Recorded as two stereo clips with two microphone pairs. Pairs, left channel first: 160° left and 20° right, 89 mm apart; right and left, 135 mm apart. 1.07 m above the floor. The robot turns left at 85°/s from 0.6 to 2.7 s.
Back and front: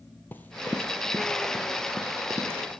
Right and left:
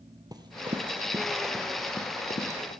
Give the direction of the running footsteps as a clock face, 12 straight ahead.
8 o'clock.